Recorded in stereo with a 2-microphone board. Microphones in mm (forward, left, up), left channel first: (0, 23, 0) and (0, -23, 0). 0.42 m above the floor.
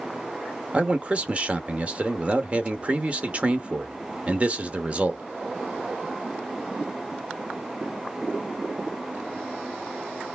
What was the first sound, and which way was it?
A man speaking, 30° right (ahead or behind).